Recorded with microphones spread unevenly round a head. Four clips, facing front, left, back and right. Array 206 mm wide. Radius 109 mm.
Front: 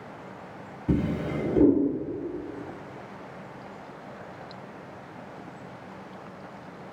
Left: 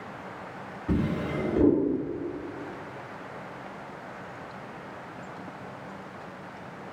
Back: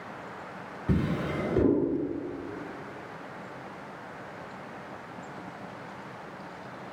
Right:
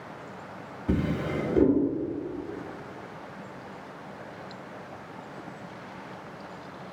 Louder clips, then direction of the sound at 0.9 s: Even, front 2 dB; 10° right.